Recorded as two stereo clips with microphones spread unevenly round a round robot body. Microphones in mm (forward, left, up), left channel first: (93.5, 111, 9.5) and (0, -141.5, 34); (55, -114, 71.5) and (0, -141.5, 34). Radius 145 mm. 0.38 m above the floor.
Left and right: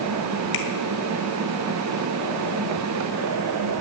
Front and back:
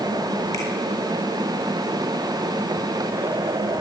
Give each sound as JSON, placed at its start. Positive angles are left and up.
{"t": 0.5, "sound": "a finger snap", "azimuth_deg": 90, "distance_m": 1.9}